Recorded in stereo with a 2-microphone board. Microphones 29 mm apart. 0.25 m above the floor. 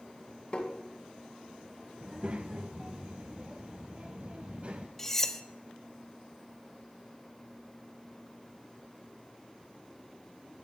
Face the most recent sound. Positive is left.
turn(degrees=15)  # may be behind; listen again after turning